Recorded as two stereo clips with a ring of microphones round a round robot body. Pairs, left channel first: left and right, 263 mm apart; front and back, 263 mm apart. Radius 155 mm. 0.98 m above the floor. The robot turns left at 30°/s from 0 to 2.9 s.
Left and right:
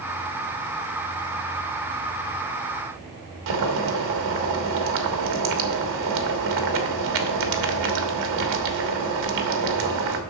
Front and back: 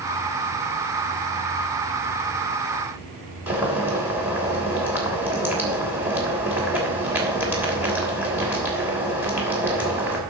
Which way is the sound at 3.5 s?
95° right.